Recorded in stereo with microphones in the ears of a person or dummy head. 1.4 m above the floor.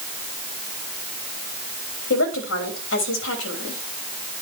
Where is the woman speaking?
65° left (ahead or behind), 3 m.